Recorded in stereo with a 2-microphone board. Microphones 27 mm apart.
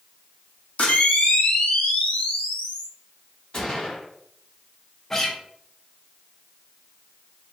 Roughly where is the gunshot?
Left.